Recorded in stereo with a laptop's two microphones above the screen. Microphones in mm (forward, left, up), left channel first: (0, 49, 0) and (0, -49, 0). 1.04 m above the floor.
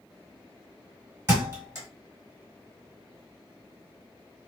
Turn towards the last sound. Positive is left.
turn(degrees=-25)  # may be behind; listen again after turning